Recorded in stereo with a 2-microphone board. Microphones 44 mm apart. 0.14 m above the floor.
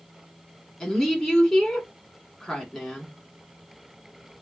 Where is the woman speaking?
10° left (ahead or behind), 1.2 m.